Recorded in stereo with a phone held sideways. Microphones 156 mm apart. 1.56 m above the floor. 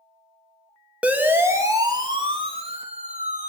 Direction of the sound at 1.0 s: 10° right (ahead or behind).